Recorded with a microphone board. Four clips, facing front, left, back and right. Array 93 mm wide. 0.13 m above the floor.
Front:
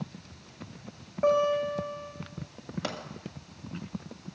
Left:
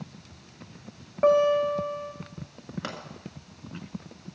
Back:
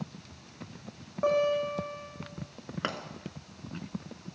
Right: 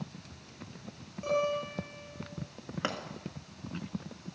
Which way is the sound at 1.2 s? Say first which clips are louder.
Left 11 dB, front 2 dB; 90° left.